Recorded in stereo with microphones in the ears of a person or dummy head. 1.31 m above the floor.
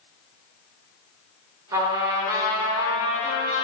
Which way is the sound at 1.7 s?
15° right (ahead or behind).